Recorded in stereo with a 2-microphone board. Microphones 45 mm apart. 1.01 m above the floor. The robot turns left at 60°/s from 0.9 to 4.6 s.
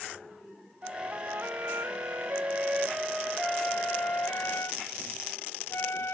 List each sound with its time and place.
0.8 s a flute: 35° right; by 6.2 s 100° left